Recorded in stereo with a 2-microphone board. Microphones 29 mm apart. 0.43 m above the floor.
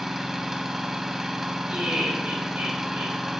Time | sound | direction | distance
0.0 | an engine running | 15° right (ahead or behind) | 0.9 m
1.7 | laughter | 65° right (ahead or behind) | 4.5 m